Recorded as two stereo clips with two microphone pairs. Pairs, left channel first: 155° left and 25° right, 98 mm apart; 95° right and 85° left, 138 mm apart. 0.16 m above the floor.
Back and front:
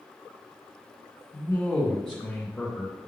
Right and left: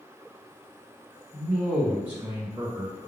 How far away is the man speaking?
About 1.6 m.